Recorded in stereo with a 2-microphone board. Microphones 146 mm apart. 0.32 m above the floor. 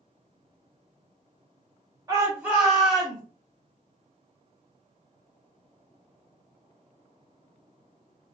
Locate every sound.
2.1 s a shout: 25° right (ahead or behind), 0.9 m; by 3.2 s 5° left (ahead or behind), 1.3 m